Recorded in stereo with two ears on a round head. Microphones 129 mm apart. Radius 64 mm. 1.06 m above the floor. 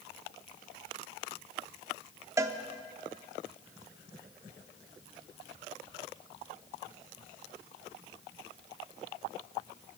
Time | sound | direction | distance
2.4 | a cowbell | 20° right (ahead or behind) | 0.6 m